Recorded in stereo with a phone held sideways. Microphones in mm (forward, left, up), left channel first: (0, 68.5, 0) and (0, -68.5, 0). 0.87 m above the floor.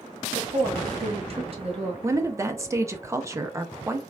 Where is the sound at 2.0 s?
20° right (ahead or behind), 0.6 m.